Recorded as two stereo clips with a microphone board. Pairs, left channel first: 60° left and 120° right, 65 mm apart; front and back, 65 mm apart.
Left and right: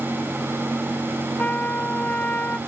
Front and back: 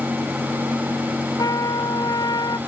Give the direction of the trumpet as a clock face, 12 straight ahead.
12 o'clock.